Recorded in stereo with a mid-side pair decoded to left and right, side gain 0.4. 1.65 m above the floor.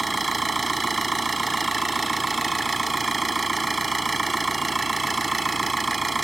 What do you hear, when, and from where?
0.0 s an engine running: 25° right